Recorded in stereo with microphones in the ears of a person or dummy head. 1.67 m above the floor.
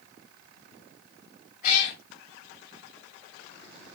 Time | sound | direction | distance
1.6 | a cat meowing | 55° left (ahead or behind) | 1.9 m